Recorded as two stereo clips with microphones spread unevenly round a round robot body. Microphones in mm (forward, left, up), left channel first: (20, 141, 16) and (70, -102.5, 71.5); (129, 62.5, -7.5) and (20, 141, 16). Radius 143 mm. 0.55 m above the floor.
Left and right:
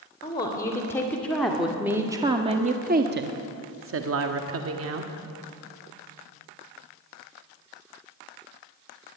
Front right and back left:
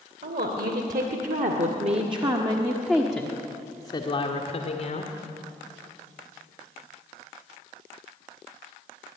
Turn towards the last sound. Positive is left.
turn(degrees=-50)